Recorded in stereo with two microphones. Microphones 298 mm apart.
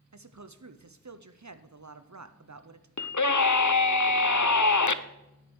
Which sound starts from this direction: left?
A scream, at 3.0 s.